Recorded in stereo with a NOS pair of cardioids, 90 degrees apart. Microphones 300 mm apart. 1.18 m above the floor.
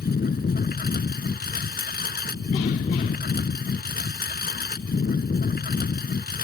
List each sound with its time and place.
0.0 s a lawn mower: 30° left